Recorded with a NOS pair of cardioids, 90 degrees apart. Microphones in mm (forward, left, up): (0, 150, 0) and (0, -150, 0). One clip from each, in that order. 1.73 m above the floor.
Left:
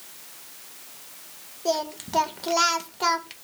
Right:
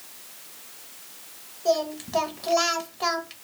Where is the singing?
15° left, 0.6 m.